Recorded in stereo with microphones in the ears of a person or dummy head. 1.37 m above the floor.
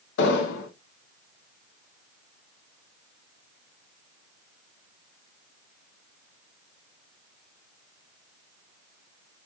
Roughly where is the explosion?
Left.